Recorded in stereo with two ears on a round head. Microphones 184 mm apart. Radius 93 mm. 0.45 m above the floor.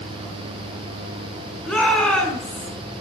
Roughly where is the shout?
Centre.